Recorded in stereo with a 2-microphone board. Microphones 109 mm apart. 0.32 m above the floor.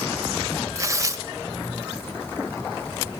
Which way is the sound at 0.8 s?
30° right (ahead or behind).